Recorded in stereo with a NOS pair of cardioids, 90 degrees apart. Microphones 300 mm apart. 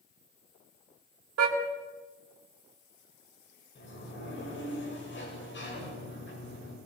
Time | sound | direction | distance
1.4 | a car horn | 55° right | 3.5 m
3.8 | a sliding door | 40° left | 9 m